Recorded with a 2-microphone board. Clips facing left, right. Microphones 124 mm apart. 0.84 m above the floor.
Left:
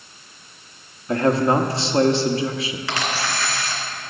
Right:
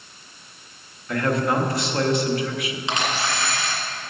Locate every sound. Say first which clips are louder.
1.1 s a man speaking: left 4 dB; 30° left (ahead or behind), 1.0 m
2.9 s a camera shutter: right 1 dB; 20° right (ahead or behind), 2.5 m